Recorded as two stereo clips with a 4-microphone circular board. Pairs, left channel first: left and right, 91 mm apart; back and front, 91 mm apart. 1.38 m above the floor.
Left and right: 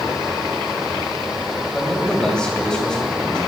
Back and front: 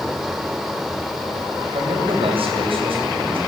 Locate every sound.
1.7 s a man speaking: 10° left, 8 m